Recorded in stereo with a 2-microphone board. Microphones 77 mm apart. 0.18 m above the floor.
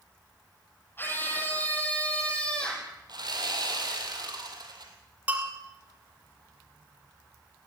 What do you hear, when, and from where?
1.0 s a scream: 30° left (ahead or behind), 5 m; by 2.9 s 10° left (ahead or behind), 6 m
3.1 s sawing: 65° right (ahead or behind), 4 m
5.3 s a bell: 20° right (ahead or behind), 4.5 m